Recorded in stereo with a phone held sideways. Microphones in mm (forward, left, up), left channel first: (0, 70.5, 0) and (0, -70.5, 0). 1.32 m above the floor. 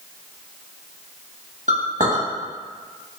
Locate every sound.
1.7 s a clink: 65° right (ahead or behind), 1.1 m